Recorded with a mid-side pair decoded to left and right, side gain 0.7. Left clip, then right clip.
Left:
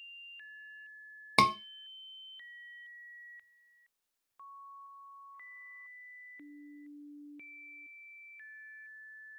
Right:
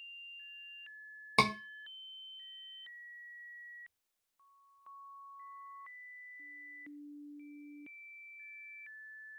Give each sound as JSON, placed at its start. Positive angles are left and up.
{"t": 1.4, "sound": "a scream", "azimuth_deg": 20, "distance_m": 0.6}